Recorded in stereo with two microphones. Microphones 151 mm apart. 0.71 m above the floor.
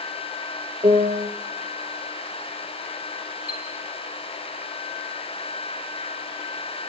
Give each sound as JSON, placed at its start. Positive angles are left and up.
{"t": 0.8, "sound": "a piano", "side_deg": -40, "distance_m": 2.5}
{"t": 3.5, "sound": "a chime", "side_deg": 85, "distance_m": 4.5}